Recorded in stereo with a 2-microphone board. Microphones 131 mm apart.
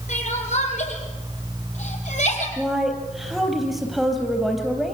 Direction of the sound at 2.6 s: Centre (ahead or behind).